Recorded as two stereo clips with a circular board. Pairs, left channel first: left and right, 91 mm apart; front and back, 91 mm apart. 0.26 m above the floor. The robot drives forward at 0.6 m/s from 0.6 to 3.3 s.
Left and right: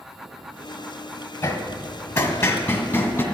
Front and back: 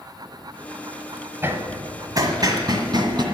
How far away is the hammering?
About 1.3 m.